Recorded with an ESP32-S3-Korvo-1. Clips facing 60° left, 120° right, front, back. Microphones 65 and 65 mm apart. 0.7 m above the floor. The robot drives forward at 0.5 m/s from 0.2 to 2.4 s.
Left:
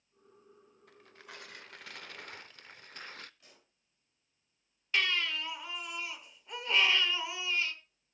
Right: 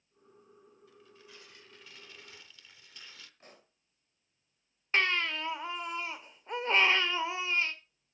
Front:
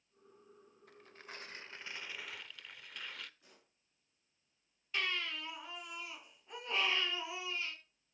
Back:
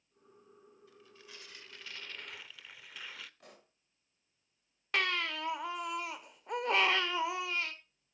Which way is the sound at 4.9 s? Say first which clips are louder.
Right 3 dB, back 5 dB; 170° right.